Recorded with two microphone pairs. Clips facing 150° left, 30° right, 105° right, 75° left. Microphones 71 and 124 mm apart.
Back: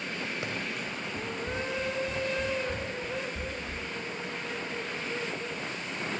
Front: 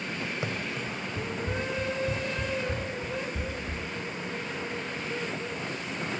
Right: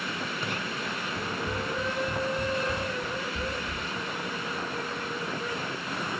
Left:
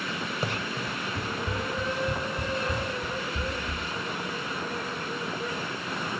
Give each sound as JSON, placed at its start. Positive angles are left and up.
{"t": 0.4, "sound": "running footsteps", "azimuth_deg": 30, "distance_m": 1.7}